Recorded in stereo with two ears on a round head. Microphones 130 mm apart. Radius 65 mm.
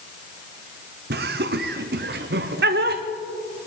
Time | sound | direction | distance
1.1 | laughter | 75° right (ahead or behind) | 0.7 m